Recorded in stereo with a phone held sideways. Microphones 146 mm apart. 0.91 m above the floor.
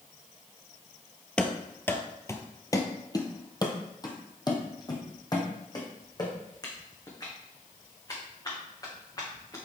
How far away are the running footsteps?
About 0.9 m.